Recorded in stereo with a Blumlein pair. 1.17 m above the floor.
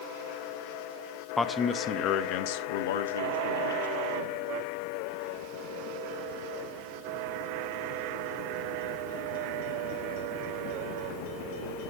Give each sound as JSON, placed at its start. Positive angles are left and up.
{"t": 1.4, "sound": "a man speaking", "azimuth_deg": 10, "distance_m": 1.1}